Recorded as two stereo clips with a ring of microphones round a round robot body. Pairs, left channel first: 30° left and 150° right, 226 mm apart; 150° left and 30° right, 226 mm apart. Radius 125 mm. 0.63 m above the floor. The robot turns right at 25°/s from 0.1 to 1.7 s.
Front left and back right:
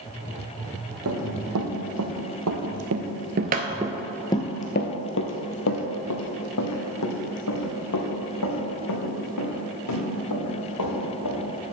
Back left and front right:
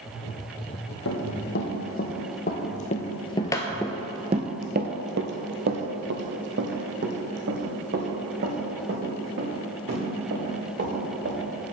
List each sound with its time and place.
1.1 s running footsteps: straight behind, 1.8 m; by 11.4 s 15° left, 4.5 m